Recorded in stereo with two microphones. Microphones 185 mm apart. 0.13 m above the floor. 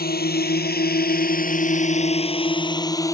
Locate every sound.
0.0 s a drone: 65° left (ahead or behind); by 3.2 s 20° left (ahead or behind)